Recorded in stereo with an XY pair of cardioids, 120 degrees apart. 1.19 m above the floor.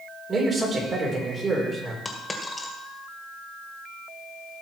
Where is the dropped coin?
15° left, 2 m.